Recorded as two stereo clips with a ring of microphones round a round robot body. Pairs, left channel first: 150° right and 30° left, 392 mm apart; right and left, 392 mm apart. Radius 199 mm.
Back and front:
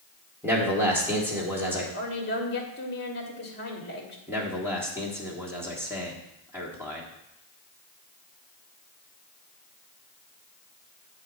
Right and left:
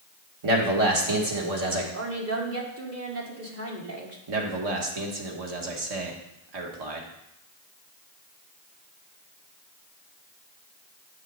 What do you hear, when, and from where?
0.4 s a man speaking: 115° left, 2.0 m
1.9 s a woman speaking: 145° left, 1.7 m
4.3 s a man speaking: 115° left, 1.6 m